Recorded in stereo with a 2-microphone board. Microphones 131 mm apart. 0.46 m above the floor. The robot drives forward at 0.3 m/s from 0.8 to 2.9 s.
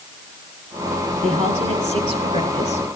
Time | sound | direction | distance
1.2 | a woman speaking | 60° right (ahead or behind) | 9 m